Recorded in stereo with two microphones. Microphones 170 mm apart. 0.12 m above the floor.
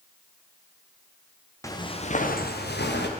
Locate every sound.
1.6 s footsteps: 20° left (ahead or behind), 1.6 m; by 3.1 s 90° left, 2 m